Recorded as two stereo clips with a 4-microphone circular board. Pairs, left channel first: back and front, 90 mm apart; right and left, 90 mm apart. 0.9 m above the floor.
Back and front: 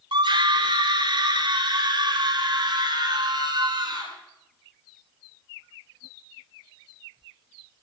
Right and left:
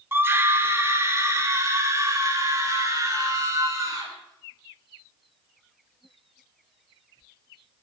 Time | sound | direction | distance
0.1 | a scream | 25° left | 2 m